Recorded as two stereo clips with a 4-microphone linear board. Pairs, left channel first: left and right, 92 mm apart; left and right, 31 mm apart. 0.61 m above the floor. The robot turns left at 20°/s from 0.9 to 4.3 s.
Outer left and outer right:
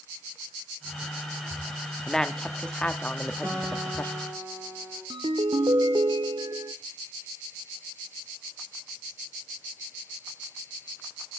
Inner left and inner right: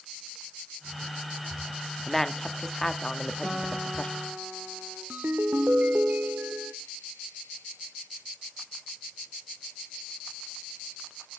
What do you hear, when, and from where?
2.1 s a woman speaking: 5° left (ahead or behind), 0.9 m; by 4.1 s 25° left (ahead or behind), 0.9 m
3.4 s a guitar: 25° right (ahead or behind), 4 m; by 5.0 s 45° right (ahead or behind), 4 m
5.1 s a ringtone: 65° right (ahead or behind), 0.7 m